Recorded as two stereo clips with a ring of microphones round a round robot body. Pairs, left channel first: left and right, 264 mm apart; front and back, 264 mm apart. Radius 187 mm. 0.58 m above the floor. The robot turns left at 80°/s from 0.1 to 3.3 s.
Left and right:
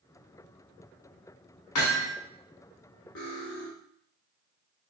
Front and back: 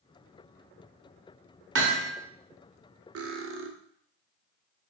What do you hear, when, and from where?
1.8 s hammering: 140° left, 1.2 m; by 2.1 s 110° left, 1.2 m
3.1 s cutlery clinking: 150° left, 0.7 m; by 3.7 s 135° left, 0.7 m